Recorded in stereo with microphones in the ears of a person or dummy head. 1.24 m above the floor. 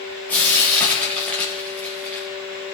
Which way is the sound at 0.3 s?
10° left (ahead or behind).